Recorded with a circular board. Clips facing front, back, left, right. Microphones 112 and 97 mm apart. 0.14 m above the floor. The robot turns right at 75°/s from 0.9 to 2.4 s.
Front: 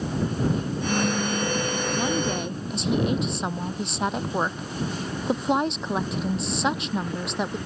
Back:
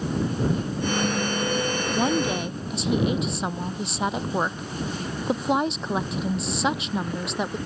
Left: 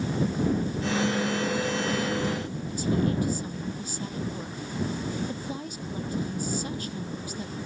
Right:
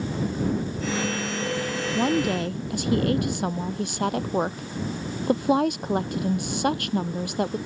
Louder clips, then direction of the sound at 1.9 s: Back 4 dB, right 5 dB; 125° right.